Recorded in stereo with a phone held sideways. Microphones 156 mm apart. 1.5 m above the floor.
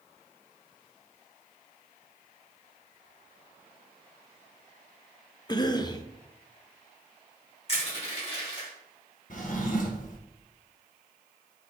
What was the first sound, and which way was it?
A cough, 25° left (ahead or behind).